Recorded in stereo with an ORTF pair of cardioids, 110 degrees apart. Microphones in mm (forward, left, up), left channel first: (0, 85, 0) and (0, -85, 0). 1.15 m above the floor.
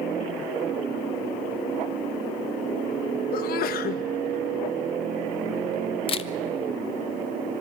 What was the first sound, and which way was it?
A sneeze, 65° left.